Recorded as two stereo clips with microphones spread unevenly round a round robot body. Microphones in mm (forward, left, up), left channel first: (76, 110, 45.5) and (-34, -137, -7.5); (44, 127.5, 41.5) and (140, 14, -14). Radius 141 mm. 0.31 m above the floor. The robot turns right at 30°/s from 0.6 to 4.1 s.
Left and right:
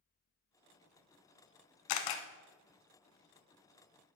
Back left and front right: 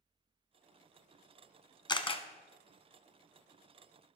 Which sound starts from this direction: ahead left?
A camera shutter, at 1.9 s.